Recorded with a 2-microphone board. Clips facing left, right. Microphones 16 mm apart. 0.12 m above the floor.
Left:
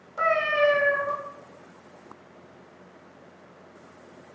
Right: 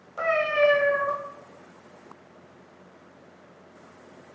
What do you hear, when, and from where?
0.2 s a cat meowing: 15° right (ahead or behind), 1.5 m